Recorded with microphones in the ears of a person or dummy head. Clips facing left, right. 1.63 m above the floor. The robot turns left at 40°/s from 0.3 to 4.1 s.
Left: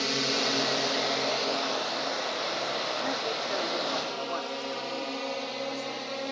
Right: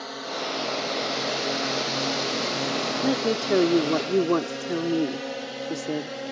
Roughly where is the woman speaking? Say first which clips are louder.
Right 8 dB; ahead right.